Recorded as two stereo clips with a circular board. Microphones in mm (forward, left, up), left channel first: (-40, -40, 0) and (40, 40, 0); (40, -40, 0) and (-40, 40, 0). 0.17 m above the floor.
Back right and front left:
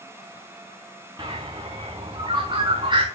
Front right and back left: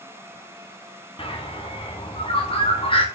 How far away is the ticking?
No ticking in this recording.